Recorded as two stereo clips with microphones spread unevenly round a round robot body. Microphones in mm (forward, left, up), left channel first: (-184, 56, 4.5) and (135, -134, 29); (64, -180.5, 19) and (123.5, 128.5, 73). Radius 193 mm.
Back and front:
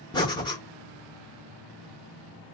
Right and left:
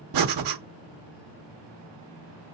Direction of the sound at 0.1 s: 70° left.